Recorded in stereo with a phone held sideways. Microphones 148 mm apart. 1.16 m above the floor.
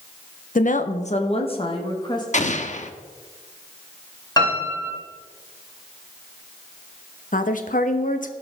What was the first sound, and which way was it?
A woman speaking, 60° left (ahead or behind).